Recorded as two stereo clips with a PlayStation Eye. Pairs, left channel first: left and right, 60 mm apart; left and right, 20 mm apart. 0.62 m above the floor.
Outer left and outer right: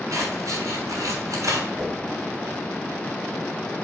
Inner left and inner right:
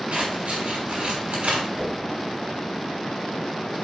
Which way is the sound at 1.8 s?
30° right (ahead or behind).